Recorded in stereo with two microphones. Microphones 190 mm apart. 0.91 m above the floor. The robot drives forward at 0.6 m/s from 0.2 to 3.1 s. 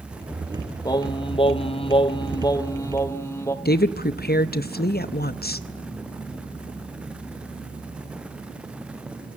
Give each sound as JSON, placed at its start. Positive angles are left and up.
{"t": 0.8, "sound": "singing", "side_deg": 20, "distance_m": 0.7}
{"t": 3.6, "sound": "a woman speaking", "side_deg": 55, "distance_m": 0.6}